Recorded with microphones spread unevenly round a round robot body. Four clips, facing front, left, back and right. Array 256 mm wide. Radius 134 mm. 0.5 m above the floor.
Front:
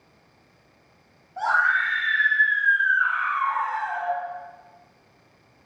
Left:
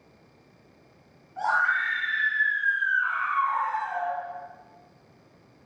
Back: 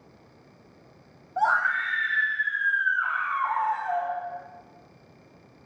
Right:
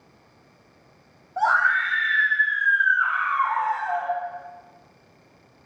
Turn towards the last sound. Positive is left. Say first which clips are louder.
# right 4 dB, front 2 dB
turn(degrees=-165)